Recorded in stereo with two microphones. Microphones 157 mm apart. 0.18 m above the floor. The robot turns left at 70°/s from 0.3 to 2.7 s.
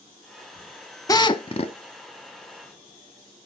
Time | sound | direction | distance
1.1 | a drill | 145° left | 0.6 m